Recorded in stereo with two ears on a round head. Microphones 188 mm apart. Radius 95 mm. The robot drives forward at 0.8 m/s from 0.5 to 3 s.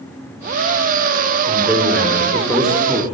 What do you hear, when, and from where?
1.5 s a man speaking: centre (ahead or behind), 3.5 m; by 3.0 s 5° right (ahead or behind), 2 m